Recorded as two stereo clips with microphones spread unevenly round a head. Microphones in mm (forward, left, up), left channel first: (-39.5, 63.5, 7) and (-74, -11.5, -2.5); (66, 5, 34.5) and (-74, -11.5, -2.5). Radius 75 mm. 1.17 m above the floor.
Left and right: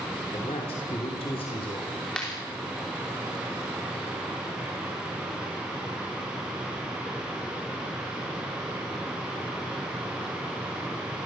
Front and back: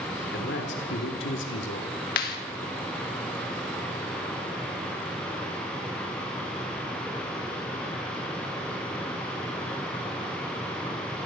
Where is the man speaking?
20° left, 3 m; by 1.9 s 5° left, 3 m.